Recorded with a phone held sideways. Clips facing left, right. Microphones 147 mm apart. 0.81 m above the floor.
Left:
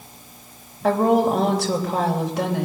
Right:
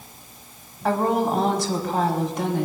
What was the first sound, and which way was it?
A woman speaking, 70° left (ahead or behind).